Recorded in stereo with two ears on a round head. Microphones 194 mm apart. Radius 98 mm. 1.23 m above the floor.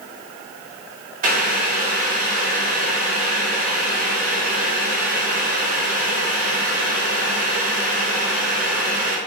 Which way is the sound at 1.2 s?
40° right (ahead or behind).